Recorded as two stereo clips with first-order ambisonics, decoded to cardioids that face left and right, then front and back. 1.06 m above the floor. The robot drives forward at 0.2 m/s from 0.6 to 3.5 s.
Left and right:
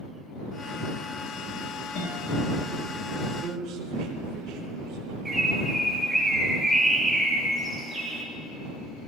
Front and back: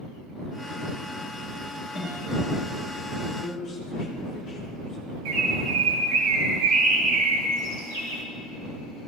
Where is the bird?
175° right, 3 m.